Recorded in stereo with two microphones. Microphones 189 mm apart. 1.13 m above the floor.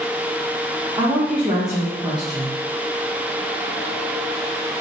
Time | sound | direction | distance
1.0 | a woman speaking | 20° right (ahead or behind) | 0.7 m